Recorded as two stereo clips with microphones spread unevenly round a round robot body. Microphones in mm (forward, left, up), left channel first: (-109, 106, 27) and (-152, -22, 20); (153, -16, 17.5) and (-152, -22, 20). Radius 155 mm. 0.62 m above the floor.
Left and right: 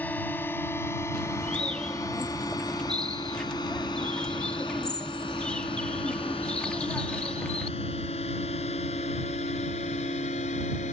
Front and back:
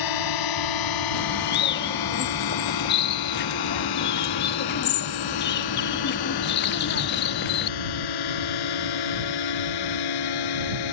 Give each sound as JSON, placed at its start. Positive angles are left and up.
{"t": 0.0, "sound": "a drone", "azimuth_deg": -10}
{"t": 1.1, "sound": "a bird", "azimuth_deg": -10}